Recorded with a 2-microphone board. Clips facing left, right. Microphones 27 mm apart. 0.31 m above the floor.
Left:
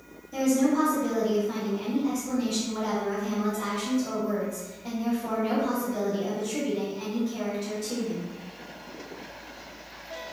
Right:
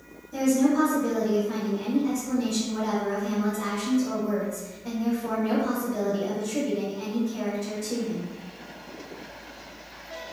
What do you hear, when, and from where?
0.3 s a woman speaking: 25° left (ahead or behind), 1.2 m